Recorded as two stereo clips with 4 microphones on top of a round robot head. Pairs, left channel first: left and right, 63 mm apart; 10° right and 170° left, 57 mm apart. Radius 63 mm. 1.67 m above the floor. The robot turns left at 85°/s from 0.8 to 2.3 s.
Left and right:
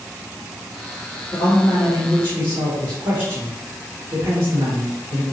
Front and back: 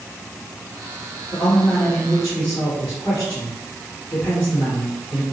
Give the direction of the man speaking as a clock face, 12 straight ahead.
12 o'clock.